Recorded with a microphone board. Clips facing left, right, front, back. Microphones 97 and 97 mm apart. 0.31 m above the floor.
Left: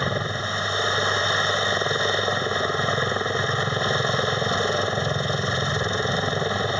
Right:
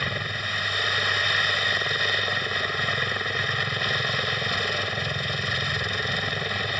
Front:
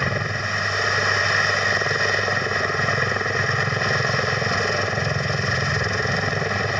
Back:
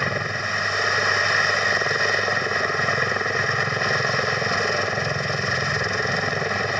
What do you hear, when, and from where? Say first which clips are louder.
0.0 s a helicopter: left 5 dB, even; 90° left